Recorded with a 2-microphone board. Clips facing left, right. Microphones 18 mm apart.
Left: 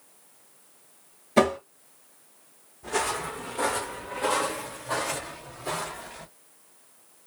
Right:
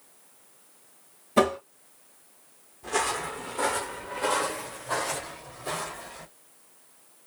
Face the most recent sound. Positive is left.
turn(degrees=5)  # may be behind; listen again after turning